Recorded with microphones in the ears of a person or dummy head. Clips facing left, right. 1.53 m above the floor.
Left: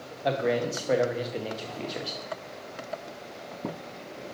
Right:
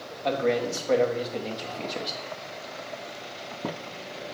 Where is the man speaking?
10° left (ahead or behind), 0.8 m.